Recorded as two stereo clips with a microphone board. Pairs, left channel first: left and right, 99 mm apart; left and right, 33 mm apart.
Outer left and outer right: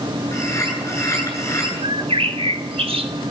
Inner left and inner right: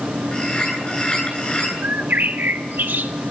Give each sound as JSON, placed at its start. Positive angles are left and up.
{"t": 0.3, "sound": "a bird", "side_deg": 30, "distance_m": 9.0}
{"t": 1.8, "sound": "a bird", "side_deg": -75, "distance_m": 1.6}